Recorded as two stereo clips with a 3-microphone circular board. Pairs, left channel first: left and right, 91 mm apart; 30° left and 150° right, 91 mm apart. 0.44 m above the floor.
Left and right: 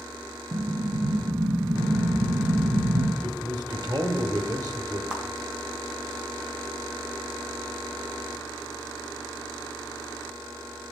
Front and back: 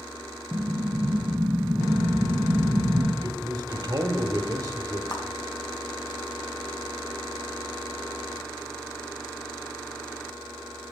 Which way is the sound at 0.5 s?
85° right.